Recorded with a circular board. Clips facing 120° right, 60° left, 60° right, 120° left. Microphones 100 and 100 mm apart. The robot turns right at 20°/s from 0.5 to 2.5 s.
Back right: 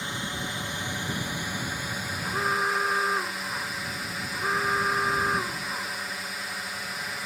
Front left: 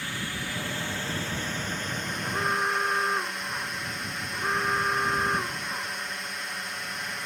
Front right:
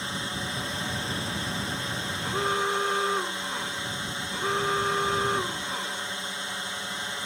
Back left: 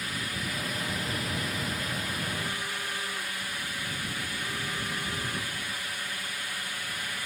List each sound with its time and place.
0.0 s a drone: 75° right; by 7.2 s 35° right
2.2 s an alarm: 40° right; by 6.2 s 35° right